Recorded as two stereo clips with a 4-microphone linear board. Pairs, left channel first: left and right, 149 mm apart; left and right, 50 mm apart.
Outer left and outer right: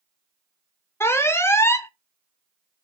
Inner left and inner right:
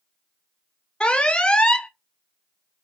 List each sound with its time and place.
1.0 s an alarm: 15° left (ahead or behind), 0.6 m